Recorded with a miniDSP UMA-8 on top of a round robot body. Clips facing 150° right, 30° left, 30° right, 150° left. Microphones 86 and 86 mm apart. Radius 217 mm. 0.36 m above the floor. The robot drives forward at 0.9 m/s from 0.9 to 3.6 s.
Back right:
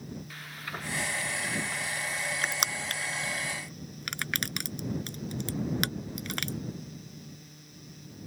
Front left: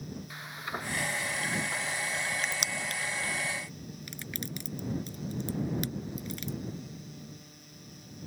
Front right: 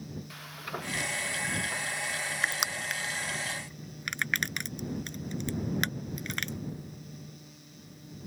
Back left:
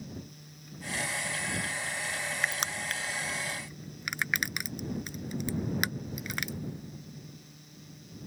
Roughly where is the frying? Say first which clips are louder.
Front left 2 dB, front right 11 dB; ahead right.